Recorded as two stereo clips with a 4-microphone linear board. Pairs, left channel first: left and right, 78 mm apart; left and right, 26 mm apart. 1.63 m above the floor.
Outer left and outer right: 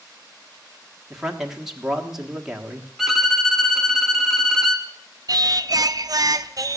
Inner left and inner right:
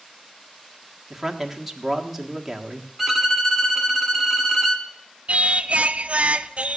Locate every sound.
1.1 s a man speaking: 10° right (ahead or behind), 1.4 m
3.0 s a violin: centre (ahead or behind), 1.3 m
5.3 s singing: 50° right (ahead or behind), 0.5 m